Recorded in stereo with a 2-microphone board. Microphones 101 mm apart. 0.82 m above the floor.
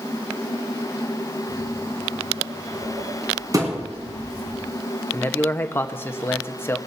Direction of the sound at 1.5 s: 60° right (ahead or behind).